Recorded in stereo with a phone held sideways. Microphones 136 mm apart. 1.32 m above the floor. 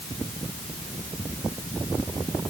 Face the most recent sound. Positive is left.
No sound to turn to.